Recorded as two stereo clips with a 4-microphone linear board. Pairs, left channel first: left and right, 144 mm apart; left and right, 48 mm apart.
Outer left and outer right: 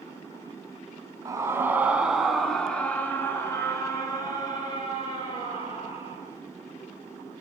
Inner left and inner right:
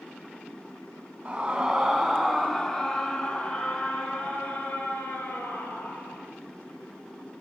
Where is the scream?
25° right (ahead or behind), 3.5 m; by 6.2 s 35° left (ahead or behind), 9 m.